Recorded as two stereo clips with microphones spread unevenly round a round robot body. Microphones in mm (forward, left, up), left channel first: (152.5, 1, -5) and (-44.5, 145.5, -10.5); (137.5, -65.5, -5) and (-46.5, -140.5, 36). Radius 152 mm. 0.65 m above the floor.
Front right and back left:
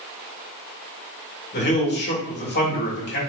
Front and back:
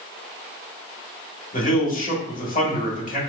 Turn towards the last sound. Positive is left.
turn(degrees=0)